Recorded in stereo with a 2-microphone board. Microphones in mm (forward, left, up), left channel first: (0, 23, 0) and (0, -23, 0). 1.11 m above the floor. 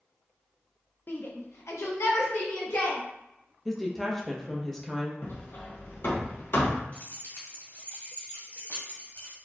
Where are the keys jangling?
45° left (ahead or behind), 1.7 m.